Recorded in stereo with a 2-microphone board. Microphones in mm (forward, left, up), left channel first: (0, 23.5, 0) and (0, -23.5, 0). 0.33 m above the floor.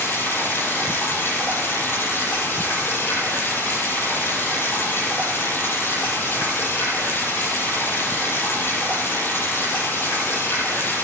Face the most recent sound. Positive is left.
turn(degrees=45)  # may be behind; listen again after turning